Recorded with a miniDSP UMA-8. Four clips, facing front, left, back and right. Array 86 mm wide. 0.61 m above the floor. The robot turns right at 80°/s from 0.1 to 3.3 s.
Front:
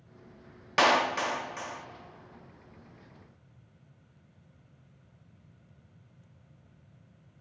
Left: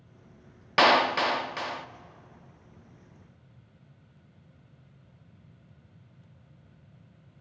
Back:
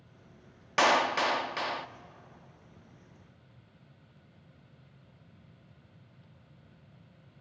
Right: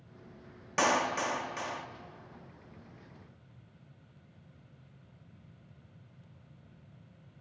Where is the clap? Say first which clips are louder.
Left 7 dB, front 1 dB; 80° left, 0.5 m; by 1.9 s 165° left, 0.5 m.